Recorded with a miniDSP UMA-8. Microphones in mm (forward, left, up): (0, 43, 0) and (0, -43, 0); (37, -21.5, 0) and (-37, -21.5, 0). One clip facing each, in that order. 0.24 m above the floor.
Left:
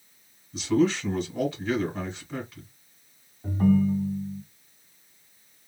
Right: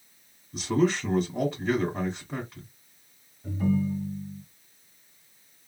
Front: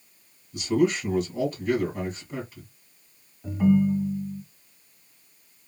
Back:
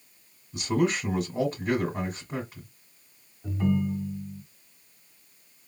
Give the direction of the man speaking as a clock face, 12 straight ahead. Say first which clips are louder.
Left 2 dB, front 3 dB; 4 o'clock.